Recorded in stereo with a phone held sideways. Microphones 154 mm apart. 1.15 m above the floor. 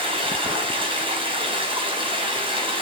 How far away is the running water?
About 4.5 m.